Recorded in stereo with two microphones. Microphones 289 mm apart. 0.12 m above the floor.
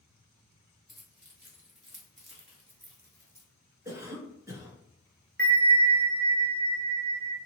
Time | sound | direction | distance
0.9 | keys jangling | 40° right (ahead or behind) | 1.5 m
3.9 | a cough | 10° right (ahead or behind) | 1.3 m
5.4 | a bell | 30° right (ahead or behind) | 0.8 m